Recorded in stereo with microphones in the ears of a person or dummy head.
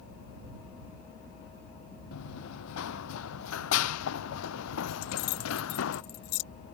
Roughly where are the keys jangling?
Left.